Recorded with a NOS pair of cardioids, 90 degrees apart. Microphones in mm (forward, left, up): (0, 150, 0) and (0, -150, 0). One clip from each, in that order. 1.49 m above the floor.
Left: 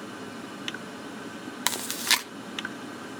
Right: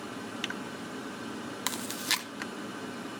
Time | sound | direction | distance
1.7 | chewing | 30° left | 0.8 m